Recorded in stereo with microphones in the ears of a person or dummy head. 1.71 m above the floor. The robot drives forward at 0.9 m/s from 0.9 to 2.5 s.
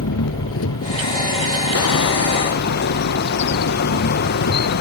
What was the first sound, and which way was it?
An engine running, 75° left (ahead or behind).